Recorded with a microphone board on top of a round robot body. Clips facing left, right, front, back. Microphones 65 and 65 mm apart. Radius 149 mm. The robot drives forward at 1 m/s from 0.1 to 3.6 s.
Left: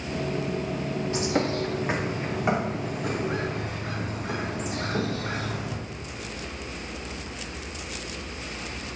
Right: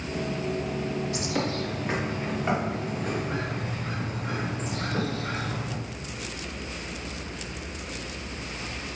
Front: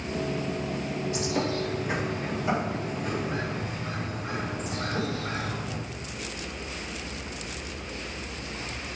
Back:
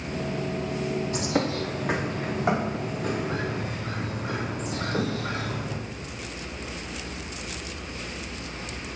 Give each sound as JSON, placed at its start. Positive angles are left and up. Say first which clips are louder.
{"t": 1.1, "sound": "a bird", "louder": "left 3 dB, even", "azimuth_deg": 145, "distance_m": 1.1}